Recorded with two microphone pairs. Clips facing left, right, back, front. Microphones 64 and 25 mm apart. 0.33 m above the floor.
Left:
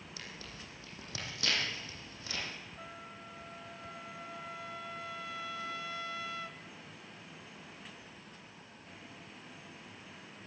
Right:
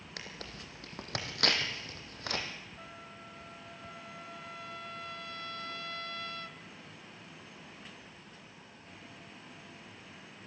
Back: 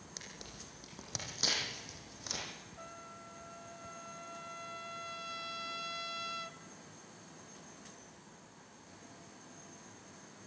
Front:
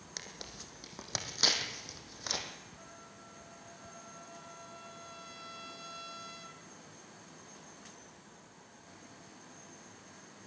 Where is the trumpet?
155° left, 0.9 m.